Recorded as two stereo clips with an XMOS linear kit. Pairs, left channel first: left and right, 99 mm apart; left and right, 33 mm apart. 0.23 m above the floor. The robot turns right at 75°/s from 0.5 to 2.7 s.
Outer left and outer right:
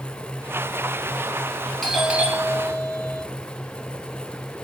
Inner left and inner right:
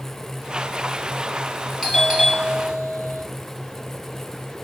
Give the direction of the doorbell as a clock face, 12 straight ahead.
6 o'clock.